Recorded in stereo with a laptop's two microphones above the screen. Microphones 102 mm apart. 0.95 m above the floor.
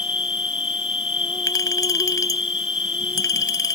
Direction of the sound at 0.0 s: 65° left (ahead or behind).